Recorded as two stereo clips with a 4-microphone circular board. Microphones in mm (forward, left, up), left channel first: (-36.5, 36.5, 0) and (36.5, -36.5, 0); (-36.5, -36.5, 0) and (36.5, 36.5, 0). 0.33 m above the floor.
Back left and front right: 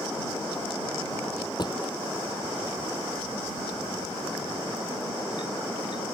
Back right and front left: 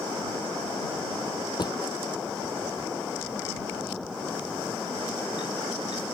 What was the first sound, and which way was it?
A drawer, straight behind.